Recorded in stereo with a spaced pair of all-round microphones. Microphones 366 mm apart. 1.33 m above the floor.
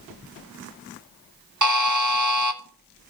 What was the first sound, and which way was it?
A buzzer, 50° right (ahead or behind).